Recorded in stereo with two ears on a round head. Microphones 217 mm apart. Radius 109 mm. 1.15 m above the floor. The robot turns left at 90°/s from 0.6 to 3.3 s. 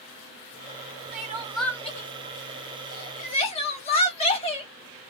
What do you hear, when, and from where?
1.1 s crying: 40° right (ahead or behind), 1.0 m; by 4.7 s 25° left (ahead or behind), 1.0 m